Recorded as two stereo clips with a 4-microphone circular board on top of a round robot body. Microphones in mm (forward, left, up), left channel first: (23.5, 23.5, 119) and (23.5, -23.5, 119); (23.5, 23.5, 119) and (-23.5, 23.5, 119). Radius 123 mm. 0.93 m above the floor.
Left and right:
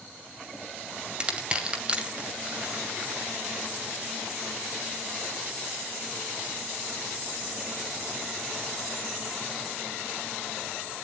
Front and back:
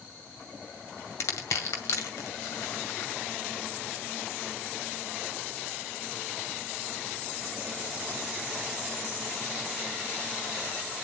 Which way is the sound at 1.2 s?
25° right.